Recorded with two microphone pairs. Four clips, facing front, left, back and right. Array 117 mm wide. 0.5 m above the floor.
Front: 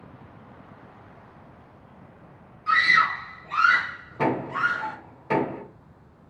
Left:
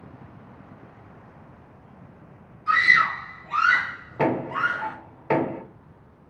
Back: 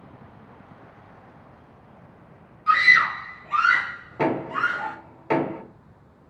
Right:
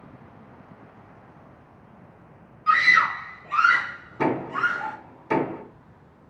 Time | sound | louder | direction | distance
2.7 | a scream | right 1 dB, back 2 dB | 95° right | 1.5 m
4.2 | knocking | left 1 dB, back 1 dB | 115° left | 1.4 m